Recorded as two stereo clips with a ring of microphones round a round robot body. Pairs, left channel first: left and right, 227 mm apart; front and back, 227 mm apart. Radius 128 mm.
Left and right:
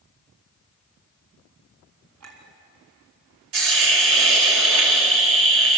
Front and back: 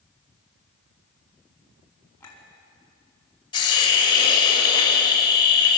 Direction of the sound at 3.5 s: 70° right.